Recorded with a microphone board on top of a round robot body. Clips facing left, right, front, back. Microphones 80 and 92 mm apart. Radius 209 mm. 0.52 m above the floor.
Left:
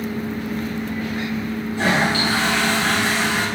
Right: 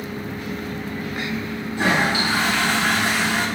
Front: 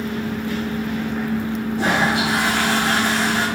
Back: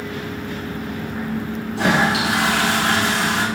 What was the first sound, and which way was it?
A toilet flushing, 165° right.